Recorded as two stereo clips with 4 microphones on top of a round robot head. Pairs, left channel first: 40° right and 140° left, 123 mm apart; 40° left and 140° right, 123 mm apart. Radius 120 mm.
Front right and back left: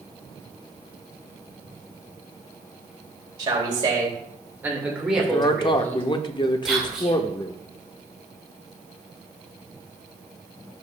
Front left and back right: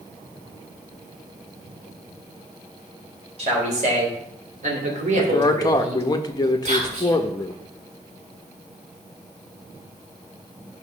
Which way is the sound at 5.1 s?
5° right.